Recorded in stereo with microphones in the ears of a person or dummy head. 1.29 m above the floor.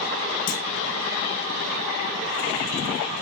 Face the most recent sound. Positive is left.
turn(degrees=45)  # may be behind; listen again after turning